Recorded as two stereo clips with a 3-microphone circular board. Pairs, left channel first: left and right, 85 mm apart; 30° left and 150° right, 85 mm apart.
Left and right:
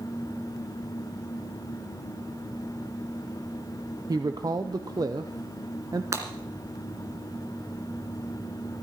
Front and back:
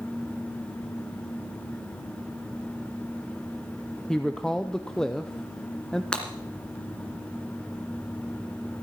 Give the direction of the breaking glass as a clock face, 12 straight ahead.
2 o'clock.